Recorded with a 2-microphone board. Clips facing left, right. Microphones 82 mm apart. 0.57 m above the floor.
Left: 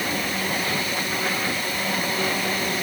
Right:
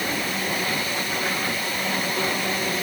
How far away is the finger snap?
No finger snap in this recording.